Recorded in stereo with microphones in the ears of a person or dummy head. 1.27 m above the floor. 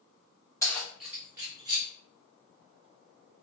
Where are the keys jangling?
15° left (ahead or behind), 0.9 m; by 1.9 s 20° right (ahead or behind), 1.9 m.